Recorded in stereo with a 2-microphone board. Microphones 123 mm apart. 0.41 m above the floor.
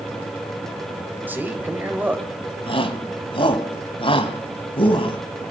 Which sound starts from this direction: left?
A shout, at 2.7 s.